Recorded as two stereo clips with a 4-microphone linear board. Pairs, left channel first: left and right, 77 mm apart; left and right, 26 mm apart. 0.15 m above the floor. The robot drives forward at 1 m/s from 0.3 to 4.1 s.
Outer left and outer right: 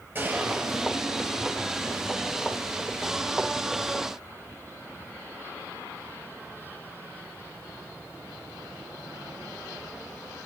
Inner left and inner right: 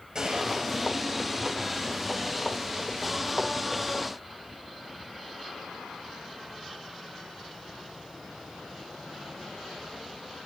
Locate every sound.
0.1 s a gunshot: 25° right (ahead or behind), 3 m; by 1.5 s 35° right (ahead or behind), 2 m